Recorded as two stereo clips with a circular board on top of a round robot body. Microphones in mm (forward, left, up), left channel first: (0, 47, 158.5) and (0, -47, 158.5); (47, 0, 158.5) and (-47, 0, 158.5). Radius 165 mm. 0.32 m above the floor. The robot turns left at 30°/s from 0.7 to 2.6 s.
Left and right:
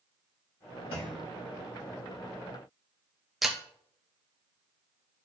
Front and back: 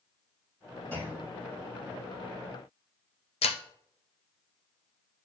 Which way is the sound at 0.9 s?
65° left.